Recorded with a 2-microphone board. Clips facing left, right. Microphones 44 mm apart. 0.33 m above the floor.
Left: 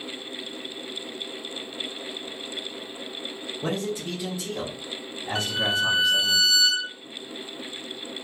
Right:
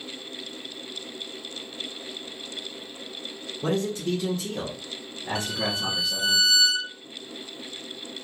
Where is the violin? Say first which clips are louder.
Left 5 dB; 25° left (ahead or behind), 1.5 m.